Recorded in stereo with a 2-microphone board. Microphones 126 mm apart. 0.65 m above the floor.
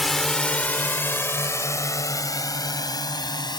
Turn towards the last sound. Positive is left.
turn(degrees=35)  # may be behind; listen again after turning